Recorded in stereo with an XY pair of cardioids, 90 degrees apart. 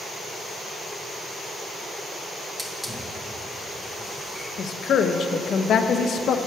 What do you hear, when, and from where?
2.6 s a hiss: 5° right, 1.2 m
4.6 s a woman speaking: 70° left, 0.6 m